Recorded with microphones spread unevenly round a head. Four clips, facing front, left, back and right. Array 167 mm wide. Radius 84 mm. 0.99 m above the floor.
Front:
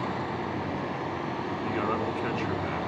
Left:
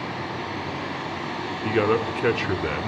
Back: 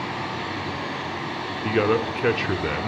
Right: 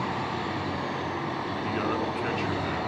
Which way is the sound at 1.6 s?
140° left.